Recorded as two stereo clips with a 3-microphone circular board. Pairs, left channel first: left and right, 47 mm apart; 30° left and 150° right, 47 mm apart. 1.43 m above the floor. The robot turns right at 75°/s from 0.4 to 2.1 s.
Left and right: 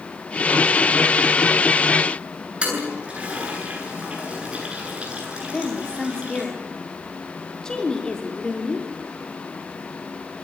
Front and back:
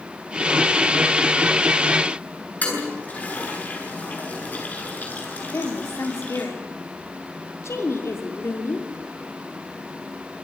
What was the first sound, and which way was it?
A toilet flushing, 25° right.